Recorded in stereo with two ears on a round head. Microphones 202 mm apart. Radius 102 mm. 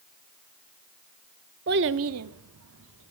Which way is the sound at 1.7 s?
45° right (ahead or behind).